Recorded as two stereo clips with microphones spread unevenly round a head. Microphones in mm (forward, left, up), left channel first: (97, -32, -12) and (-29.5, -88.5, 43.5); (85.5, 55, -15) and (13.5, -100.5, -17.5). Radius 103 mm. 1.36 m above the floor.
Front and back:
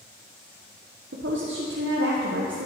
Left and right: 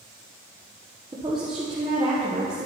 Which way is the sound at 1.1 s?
175° left.